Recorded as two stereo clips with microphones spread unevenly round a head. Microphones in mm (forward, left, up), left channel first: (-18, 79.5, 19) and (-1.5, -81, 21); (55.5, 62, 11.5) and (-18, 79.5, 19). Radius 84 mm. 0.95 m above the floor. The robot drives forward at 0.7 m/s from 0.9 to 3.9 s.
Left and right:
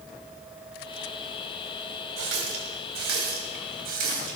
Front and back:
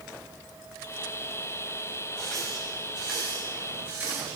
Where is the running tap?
100° right, 3 m; by 4.4 s 120° right, 3.5 m.